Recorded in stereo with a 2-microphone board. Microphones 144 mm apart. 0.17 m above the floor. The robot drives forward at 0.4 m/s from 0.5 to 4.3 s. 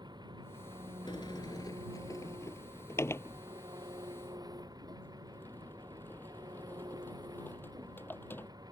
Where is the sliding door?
35° left (ahead or behind); by 8.5 s 15° left (ahead or behind).